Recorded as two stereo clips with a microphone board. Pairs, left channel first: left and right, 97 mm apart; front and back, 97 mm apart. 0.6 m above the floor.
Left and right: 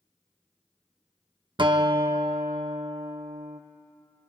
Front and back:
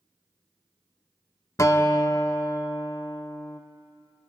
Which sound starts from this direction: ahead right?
A guitar, at 1.6 s.